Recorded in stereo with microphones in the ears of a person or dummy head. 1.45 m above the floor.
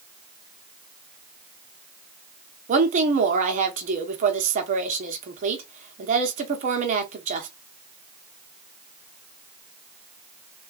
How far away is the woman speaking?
About 1.1 m.